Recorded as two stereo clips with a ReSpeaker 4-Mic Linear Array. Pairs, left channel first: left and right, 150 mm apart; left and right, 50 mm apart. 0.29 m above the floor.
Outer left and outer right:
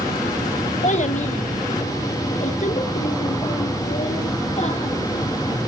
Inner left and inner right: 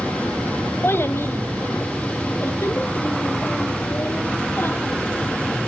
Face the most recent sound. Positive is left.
turn(degrees=50)  # may be behind; listen again after turning